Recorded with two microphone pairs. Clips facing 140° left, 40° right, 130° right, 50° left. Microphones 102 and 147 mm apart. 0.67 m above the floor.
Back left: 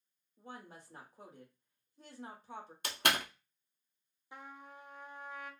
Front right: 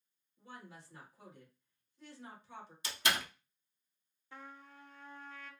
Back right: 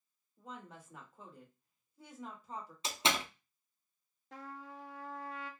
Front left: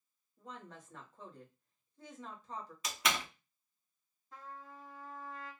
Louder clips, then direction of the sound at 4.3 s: Back left 2 dB, back right 3 dB; 140° right.